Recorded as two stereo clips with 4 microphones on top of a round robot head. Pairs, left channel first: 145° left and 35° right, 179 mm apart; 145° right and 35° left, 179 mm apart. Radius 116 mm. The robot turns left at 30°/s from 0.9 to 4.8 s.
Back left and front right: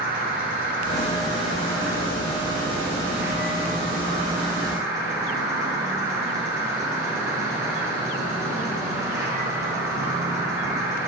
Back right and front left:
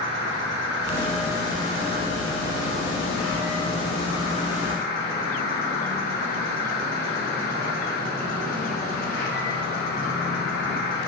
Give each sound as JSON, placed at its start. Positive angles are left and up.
{"t": 0.0, "sound": "an insect", "azimuth_deg": 10, "distance_m": 1.2}